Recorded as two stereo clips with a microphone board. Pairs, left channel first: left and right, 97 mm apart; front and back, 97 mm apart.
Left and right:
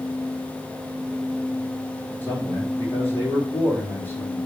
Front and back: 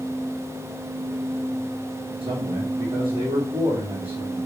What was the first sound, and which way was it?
A man speaking, 160° left.